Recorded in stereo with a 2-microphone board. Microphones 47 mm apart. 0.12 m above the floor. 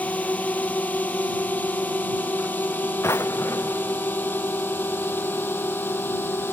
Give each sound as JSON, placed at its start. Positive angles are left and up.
{"t": 0.0, "sound": "a drone", "side_deg": 35}
{"t": 3.0, "sound": "a drawer", "side_deg": 80}